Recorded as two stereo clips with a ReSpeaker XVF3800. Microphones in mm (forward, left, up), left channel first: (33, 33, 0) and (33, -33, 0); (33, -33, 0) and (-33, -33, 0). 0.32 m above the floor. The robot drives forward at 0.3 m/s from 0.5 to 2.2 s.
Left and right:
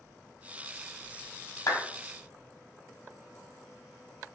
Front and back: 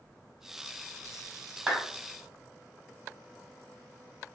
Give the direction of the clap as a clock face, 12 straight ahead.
9 o'clock.